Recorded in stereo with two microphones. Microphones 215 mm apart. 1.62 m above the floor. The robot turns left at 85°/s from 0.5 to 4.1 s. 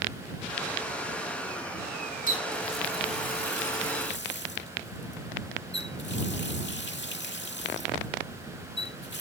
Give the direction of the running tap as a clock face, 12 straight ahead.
5 o'clock.